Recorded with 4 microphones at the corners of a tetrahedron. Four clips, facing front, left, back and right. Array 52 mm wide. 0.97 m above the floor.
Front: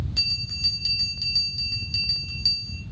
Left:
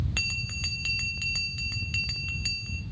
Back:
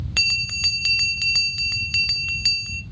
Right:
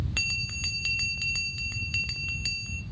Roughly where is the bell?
Behind.